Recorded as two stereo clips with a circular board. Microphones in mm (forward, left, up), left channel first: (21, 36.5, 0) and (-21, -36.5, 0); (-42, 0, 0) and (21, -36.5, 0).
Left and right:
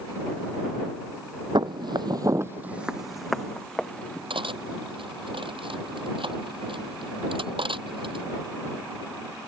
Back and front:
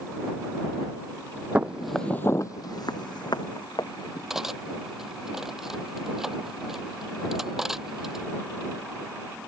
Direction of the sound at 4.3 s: 115° right.